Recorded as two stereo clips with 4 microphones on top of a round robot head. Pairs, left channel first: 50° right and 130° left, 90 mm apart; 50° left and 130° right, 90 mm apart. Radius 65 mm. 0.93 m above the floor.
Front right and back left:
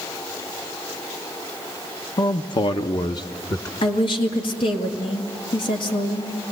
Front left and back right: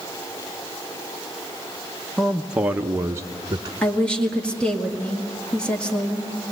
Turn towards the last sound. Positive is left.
turn(degrees=-25)